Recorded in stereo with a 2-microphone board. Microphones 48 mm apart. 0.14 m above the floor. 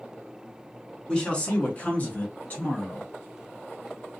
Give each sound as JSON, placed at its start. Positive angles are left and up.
{"t": 1.1, "sound": "a man speaking", "side_deg": 20, "distance_m": 1.1}